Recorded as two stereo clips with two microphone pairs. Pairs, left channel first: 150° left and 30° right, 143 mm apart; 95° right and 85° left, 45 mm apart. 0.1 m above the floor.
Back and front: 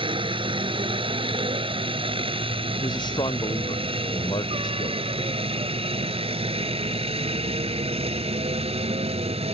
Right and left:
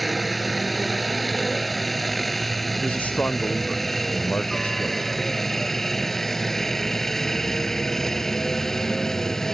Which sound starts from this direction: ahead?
A helicopter, at 0.0 s.